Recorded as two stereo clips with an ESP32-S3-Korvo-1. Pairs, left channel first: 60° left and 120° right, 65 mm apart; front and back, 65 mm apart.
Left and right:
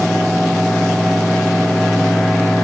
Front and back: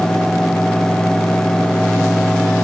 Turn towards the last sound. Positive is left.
No sound to turn to.